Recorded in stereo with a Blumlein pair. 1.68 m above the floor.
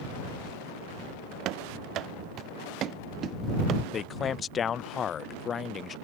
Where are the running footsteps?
35° right; by 3.8 s 30° right.